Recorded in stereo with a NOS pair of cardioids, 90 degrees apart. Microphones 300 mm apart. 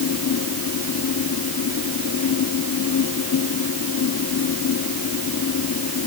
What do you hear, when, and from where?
0.0 s a fan: 55° left